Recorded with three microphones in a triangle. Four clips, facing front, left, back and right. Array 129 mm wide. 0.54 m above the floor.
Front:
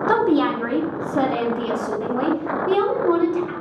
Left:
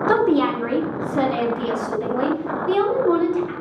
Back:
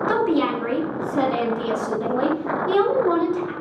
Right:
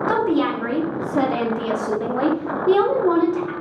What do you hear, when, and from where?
0.1 s a woman speaking: 20° left, 0.9 m; by 3.5 s 85° right, 1.9 m